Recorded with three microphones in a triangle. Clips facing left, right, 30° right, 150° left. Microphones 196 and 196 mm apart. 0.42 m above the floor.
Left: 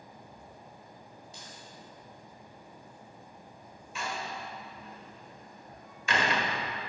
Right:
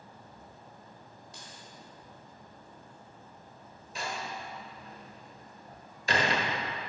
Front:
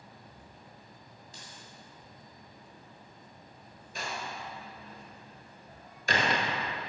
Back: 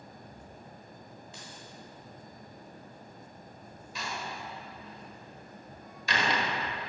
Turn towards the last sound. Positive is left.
turn(degrees=-45)